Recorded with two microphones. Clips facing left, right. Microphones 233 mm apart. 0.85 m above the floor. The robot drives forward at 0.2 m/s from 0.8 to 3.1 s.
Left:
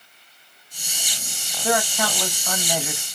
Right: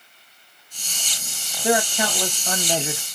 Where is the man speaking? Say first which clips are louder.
Right 2 dB; 20° right (ahead or behind), 0.8 m; by 3.0 s 25° right (ahead or behind), 0.6 m.